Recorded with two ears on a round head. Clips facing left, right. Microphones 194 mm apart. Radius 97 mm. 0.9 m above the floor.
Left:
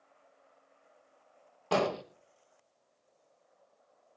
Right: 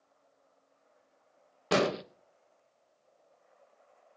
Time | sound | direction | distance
1.7 | an explosion | 25° right (ahead or behind) | 0.9 m